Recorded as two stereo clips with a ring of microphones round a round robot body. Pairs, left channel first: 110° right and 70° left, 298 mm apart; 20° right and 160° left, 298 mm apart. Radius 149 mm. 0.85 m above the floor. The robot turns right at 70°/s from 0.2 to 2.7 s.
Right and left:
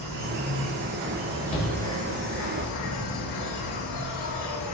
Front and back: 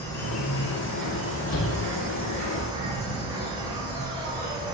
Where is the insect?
55° left, 1.8 m; by 4.7 s 130° right, 1.8 m.